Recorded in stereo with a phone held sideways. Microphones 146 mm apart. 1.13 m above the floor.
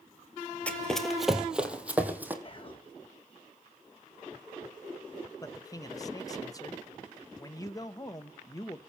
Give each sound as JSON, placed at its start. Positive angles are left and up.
{"t": 0.7, "sound": "running footsteps", "side_deg": 10, "distance_m": 1.3}
{"t": 2.4, "sound": "whispering", "side_deg": 40, "distance_m": 1.0}
{"t": 5.4, "sound": "a man speaking", "side_deg": 25, "distance_m": 0.8}